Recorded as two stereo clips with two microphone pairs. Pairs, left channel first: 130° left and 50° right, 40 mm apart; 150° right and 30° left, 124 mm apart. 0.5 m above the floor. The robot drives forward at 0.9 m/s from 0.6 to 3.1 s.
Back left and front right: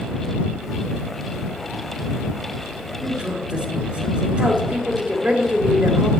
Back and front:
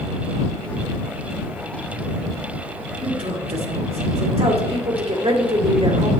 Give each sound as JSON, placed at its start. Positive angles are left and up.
{"t": 3.0, "sound": "a woman speaking", "azimuth_deg": 5, "distance_m": 2.5}